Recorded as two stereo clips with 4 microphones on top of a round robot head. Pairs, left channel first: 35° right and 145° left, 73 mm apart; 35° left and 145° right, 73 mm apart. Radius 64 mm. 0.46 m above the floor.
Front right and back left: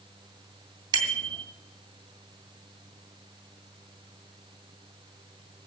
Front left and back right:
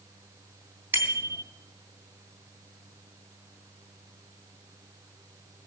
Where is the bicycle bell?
155° left, 3 m.